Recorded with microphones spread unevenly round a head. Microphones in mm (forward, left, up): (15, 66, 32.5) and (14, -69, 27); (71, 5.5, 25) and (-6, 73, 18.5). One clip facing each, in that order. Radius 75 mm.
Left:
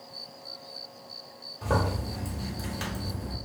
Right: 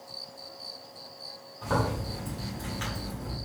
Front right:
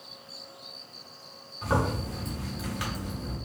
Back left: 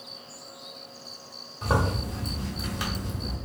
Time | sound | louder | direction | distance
1.6 | a zipper | left 1 dB, back left 1 dB | 105° left | 1.1 m